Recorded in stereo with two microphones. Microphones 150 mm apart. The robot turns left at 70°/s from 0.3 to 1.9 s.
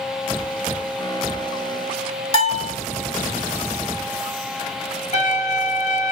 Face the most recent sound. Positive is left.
turn(degrees=50)  # may be behind; listen again after turning